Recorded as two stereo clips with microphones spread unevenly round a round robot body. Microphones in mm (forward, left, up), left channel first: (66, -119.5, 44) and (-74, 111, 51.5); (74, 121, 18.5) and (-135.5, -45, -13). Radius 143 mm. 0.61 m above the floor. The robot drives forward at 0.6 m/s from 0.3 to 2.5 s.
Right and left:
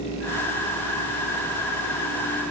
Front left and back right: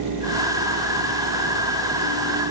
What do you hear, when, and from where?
Only background noise.